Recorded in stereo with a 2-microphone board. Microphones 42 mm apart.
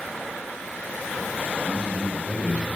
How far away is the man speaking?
About 2.5 m.